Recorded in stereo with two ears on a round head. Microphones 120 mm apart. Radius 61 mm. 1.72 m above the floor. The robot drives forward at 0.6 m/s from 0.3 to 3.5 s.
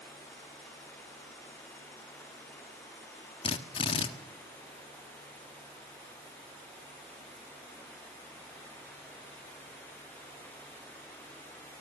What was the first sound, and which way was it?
A drill, 40° left (ahead or behind).